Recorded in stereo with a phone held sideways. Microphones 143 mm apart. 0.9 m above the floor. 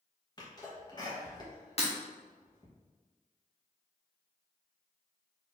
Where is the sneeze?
30° left (ahead or behind), 1.0 m.